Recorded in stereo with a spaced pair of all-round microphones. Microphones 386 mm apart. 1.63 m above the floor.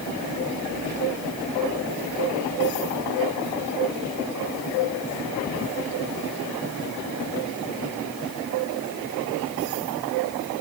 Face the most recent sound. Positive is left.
No sound to turn to.